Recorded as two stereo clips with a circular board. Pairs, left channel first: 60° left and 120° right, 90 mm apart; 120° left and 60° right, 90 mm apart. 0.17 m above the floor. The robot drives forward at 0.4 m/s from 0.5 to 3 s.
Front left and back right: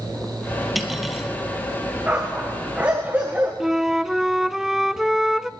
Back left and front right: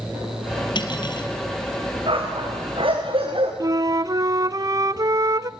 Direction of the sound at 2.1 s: 50° right.